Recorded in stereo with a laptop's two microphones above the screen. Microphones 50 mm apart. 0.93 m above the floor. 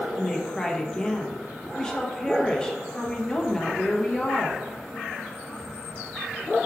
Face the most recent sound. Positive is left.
turn(degrees=15)  # may be behind; listen again after turning